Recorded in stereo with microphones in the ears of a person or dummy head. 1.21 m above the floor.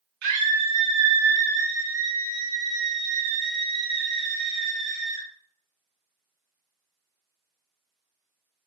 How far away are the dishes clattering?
I don't hear dishes clattering.